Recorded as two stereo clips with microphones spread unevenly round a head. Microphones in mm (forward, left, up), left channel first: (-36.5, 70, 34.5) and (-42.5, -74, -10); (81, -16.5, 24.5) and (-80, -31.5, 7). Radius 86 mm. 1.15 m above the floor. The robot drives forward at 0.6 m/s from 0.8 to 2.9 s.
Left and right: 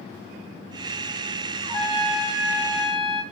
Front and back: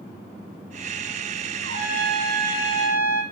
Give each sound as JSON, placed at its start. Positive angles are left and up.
{"t": 1.6, "sound": "a trumpet", "azimuth_deg": 175, "distance_m": 1.3}